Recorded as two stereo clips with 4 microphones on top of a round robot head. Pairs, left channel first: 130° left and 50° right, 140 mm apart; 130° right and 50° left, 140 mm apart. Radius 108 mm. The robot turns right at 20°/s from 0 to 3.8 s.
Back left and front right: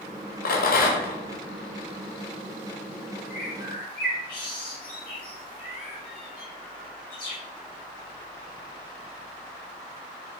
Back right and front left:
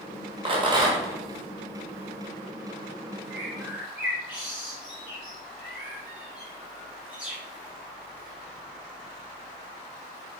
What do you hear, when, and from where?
0.5 s a rattle: 105° left, 1.4 m; by 1.2 s 120° left, 1.4 m
3.3 s a bird: 120° left, 3.5 m; by 7.4 s 130° left, 3.5 m